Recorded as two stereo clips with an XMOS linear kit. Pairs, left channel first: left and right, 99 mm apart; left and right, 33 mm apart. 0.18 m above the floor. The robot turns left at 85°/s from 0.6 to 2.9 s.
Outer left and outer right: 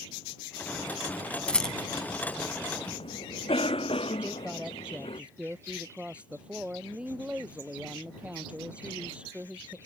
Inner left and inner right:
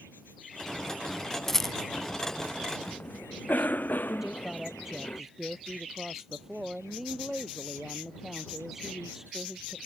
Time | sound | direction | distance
1.5 | a rattle | 10° left (ahead or behind) | ?
2.9 | a cough | 75° left (ahead or behind) | ?
4.2 | a woman speaking | 10° right (ahead or behind) | ?